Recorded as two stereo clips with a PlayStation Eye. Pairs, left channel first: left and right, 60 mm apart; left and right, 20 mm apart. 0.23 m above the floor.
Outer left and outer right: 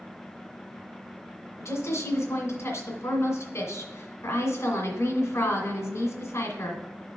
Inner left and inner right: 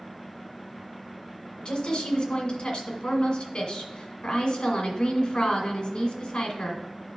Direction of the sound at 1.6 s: 55° left (ahead or behind).